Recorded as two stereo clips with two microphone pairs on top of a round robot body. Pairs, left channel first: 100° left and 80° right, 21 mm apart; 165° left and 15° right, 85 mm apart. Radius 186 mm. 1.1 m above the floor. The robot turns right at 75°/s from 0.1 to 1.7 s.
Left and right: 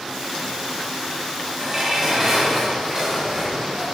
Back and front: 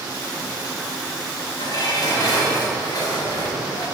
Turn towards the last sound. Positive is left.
turn(degrees=-150)